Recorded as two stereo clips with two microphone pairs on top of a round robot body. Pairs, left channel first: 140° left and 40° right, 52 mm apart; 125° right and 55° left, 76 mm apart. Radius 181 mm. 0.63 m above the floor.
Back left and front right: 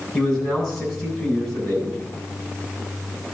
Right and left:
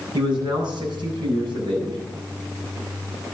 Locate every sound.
0.1 s a man speaking: 55° left, 8.5 m